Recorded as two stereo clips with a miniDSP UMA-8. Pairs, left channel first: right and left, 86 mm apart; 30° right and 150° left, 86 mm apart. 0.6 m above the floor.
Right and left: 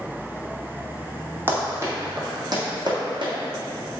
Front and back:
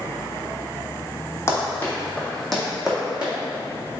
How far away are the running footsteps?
About 1.2 m.